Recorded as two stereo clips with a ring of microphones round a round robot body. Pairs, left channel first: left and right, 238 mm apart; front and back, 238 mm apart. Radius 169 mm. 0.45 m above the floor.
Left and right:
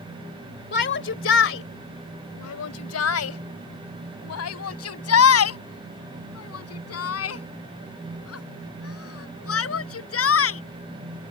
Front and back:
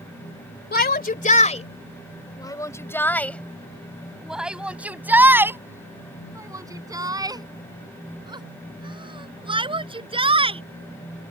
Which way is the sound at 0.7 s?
40° left.